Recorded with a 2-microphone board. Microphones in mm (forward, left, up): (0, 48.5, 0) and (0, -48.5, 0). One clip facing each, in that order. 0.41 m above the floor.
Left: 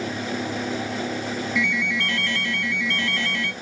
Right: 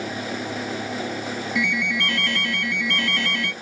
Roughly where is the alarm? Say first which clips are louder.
Right 2 dB; right.